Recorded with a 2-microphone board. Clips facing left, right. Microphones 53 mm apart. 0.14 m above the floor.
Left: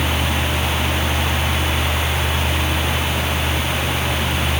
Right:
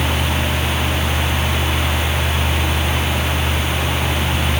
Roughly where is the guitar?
I don't hear a guitar.